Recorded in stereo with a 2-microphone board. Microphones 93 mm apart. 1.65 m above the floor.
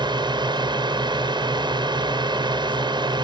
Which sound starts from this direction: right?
A drone, at 0.0 s.